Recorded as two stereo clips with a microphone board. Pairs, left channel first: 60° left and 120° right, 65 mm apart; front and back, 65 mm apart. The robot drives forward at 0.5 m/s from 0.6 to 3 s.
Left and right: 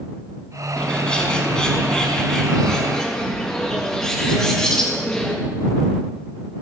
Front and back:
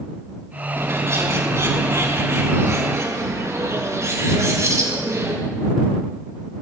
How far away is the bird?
About 5.5 m.